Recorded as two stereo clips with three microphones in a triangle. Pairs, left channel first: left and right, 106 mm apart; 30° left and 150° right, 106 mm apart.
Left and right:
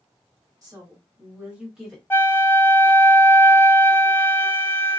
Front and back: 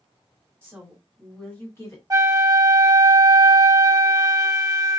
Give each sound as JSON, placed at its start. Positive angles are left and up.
{"t": 0.6, "sound": "a woman speaking", "azimuth_deg": -100, "distance_m": 1.5}
{"t": 2.1, "sound": "a flute", "azimuth_deg": 160, "distance_m": 0.7}